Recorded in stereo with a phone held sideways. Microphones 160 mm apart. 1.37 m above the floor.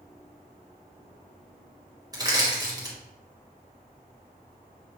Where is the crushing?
25° right (ahead or behind), 1.3 m.